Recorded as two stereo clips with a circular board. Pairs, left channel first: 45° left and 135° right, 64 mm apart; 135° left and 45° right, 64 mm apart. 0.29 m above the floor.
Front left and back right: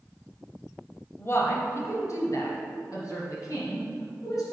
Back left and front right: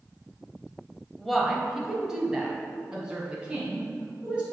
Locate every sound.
1.2 s a woman speaking: 50° left, 1.0 m; by 4.4 s 25° left, 3 m